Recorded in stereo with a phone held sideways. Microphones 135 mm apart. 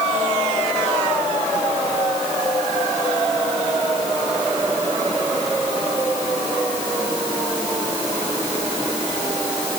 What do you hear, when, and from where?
Only background noise.